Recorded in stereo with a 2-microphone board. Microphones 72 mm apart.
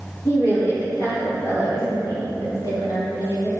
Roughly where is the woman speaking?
Left.